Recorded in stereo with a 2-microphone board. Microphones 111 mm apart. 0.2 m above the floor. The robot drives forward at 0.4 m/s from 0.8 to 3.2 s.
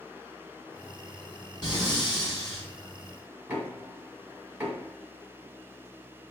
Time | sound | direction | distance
1.6 | breathing | 40° left (ahead or behind) | 1.5 m
3.5 | knocking | 15° right (ahead or behind) | 1.4 m